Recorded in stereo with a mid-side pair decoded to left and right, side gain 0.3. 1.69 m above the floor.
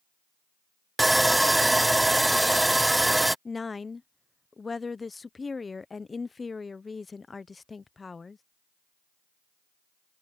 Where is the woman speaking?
40° left.